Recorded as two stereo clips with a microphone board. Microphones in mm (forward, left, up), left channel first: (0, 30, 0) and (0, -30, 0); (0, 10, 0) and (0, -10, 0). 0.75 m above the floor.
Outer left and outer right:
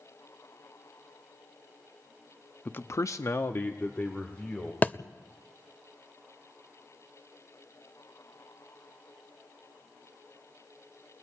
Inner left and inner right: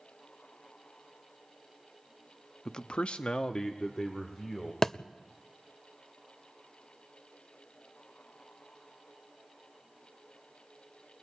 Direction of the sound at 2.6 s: 25° left (ahead or behind).